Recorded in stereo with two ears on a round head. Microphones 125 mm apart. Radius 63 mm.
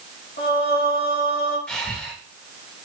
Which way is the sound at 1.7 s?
10° left (ahead or behind).